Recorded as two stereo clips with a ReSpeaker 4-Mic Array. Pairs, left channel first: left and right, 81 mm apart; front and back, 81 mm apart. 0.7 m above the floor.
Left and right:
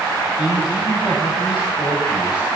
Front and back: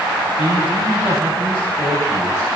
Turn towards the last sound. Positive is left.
turn(degrees=130)